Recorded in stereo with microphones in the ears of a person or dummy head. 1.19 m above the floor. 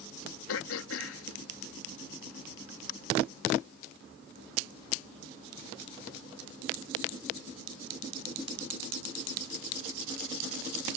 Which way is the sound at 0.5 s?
85° left.